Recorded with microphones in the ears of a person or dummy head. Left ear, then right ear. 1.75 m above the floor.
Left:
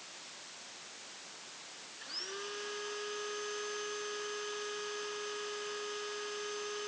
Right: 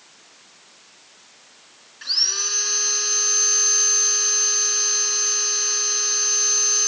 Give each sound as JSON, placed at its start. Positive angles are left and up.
{"t": 2.0, "sound": "sawing", "side_deg": -70}